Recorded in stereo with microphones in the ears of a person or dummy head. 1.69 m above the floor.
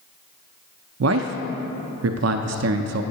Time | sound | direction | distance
1.0 | a man speaking | 80° right | 0.5 m